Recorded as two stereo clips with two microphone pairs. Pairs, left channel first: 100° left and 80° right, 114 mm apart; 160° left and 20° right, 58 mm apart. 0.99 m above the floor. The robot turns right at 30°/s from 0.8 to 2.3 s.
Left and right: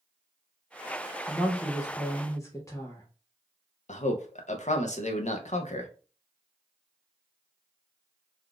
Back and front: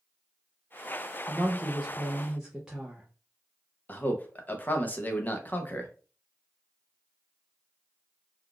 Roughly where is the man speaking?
Left.